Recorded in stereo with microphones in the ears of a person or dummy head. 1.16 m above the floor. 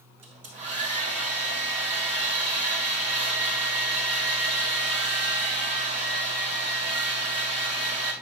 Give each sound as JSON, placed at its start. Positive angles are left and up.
{"t": 0.2, "sound": "a hair dryer", "side_deg": -40, "distance_m": 4.0}